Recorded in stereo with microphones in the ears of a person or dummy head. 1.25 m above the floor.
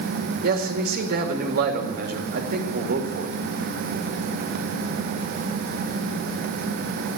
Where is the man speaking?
55° right (ahead or behind), 2 m.